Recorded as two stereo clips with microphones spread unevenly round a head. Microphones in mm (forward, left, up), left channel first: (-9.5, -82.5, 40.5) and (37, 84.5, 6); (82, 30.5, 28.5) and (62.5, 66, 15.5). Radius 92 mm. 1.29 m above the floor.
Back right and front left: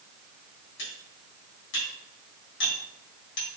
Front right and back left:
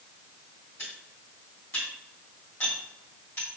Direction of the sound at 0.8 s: 115° right.